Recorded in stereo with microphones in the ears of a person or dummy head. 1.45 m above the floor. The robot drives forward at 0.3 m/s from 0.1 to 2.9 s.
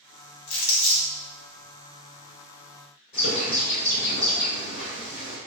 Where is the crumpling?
70° left (ahead or behind), 1.4 m; by 1.1 s 80° left, 1.3 m.